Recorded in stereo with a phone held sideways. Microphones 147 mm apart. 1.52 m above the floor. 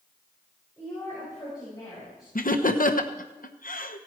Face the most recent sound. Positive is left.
turn(degrees=65)  # may be behind; listen again after turning